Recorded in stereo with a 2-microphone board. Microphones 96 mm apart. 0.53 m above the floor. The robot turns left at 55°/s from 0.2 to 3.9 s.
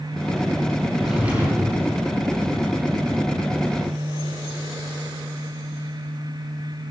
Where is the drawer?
5° left, 6.5 m; by 1.8 s 45° right, 6.5 m.